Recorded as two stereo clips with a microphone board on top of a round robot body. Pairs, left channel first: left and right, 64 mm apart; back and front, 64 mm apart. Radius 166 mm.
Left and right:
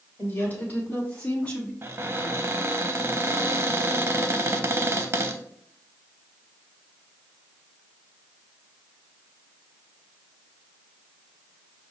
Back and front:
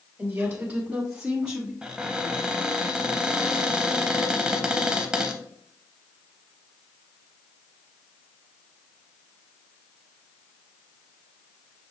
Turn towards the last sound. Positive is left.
turn(degrees=-70)